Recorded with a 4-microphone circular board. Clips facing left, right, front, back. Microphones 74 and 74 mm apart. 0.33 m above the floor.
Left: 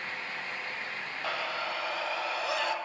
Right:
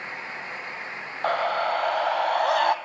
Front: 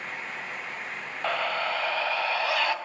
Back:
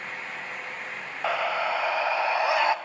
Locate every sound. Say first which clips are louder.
1.2 s a scream: right 11 dB, back 2 dB; 100° right, 1.3 m; by 2.8 s 115° right, 1.9 m